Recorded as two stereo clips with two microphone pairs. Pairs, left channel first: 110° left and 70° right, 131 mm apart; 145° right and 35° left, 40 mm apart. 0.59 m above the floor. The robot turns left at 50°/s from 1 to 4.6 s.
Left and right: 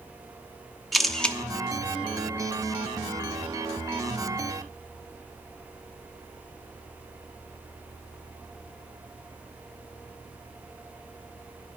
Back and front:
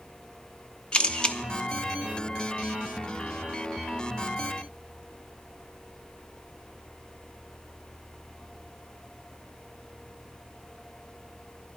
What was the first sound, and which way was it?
A camera shutter, 160° right.